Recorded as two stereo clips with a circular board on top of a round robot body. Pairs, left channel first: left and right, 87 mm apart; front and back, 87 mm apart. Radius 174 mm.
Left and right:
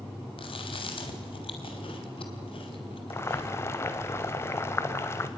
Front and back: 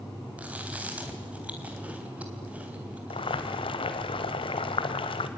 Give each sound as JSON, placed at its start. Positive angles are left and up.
{"t": 0.4, "sound": "chewing", "azimuth_deg": 105, "distance_m": 3.5}
{"t": 3.1, "sound": "boiling", "azimuth_deg": 25, "distance_m": 1.0}